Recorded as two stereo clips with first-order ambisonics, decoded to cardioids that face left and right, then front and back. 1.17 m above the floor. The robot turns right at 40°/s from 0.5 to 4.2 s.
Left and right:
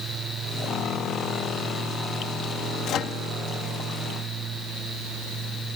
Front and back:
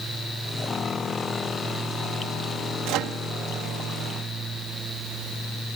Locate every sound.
2.9 s a microwave: 140° left; by 3.2 s 155° left